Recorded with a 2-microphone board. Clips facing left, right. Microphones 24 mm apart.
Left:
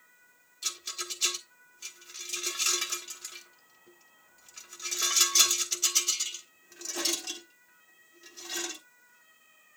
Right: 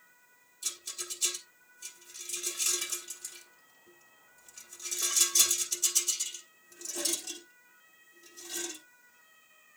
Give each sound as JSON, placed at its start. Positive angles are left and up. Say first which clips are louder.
{"t": 0.6, "sound": "a rattle", "louder": "left 4 dB", "side_deg": 40, "distance_m": 1.2}